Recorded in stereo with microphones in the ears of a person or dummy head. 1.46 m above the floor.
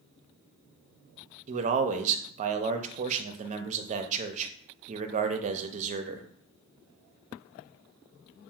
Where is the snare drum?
No snare drum in this recording.